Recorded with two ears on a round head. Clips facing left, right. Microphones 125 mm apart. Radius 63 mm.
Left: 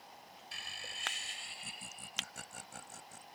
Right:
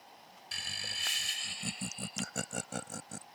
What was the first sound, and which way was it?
Laughter, 60° right (ahead or behind).